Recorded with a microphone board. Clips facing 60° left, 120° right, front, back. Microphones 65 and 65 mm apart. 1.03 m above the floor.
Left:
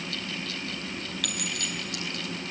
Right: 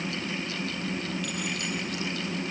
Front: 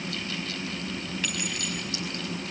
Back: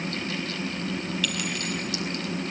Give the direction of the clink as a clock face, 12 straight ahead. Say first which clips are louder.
Right 2 dB, back 3 dB; 10 o'clock.